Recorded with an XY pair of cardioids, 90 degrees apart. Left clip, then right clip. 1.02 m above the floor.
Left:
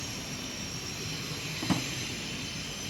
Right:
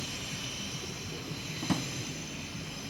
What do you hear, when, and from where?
1.6 s a drawer: 10° left, 2 m